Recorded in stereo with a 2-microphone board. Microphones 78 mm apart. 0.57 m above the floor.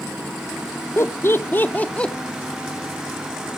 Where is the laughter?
35° left (ahead or behind), 0.7 m; by 2.1 s 10° left (ahead or behind), 0.7 m.